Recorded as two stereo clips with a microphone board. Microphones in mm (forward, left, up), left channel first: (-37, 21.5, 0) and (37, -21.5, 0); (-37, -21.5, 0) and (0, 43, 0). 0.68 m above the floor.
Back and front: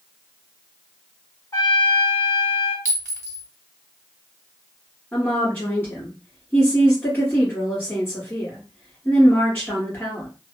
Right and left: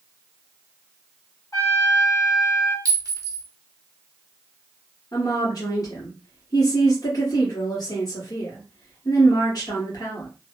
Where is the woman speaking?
145° right, 1.5 m.